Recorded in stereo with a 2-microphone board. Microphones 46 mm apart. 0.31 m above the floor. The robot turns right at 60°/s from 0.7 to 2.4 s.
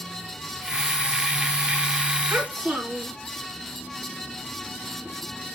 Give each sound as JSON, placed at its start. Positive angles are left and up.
{"t": 2.3, "sound": "a child speaking", "side_deg": -45, "distance_m": 3.5}